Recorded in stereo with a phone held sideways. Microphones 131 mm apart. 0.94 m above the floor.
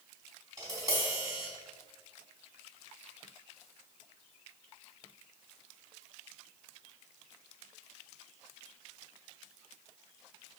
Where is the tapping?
30° right (ahead or behind), 3 m.